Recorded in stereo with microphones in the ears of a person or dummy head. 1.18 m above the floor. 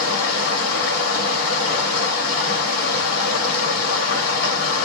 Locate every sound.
0.0 s running water: 55° left (ahead or behind), 1.2 m